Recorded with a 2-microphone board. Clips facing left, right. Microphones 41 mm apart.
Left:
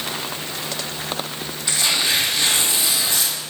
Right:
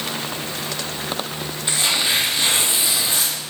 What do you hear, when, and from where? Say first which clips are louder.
1.7 s tearing paper: even; 25° right (ahead or behind), 4 m